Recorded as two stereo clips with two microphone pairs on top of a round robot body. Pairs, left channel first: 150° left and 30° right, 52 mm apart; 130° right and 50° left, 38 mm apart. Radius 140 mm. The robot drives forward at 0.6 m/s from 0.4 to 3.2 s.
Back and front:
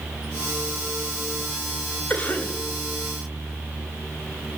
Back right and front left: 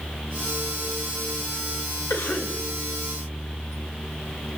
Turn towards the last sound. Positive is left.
turn(degrees=-150)